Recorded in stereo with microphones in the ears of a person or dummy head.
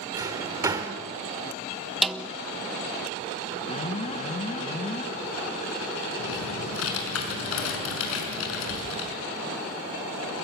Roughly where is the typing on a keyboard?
Left.